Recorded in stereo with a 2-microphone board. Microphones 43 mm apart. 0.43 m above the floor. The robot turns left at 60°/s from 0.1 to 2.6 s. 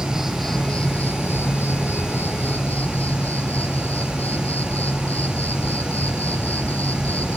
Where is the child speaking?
No child speaking in this recording.